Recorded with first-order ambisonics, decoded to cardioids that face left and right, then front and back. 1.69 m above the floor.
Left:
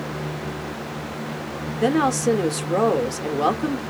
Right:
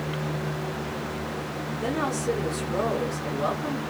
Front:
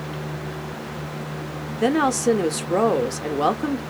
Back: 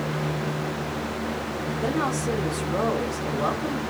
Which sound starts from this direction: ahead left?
A woman speaking, at 1.8 s.